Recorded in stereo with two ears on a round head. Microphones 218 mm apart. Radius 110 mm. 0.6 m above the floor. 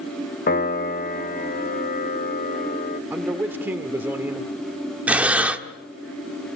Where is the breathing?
5° right (ahead or behind), 1.3 m.